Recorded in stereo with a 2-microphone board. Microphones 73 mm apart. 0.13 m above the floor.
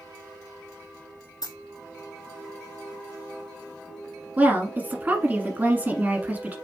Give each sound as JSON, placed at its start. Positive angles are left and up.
{"t": 1.4, "sound": "a dropped coin", "side_deg": 60, "distance_m": 2.5}
{"t": 4.4, "sound": "a woman speaking", "side_deg": -20, "distance_m": 1.1}